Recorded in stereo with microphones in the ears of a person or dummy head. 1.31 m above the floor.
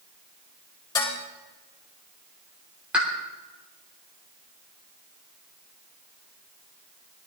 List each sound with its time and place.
0.9 s dishes clattering: 20° left (ahead or behind), 4 m
2.9 s a pop: 10° right (ahead or behind), 3 m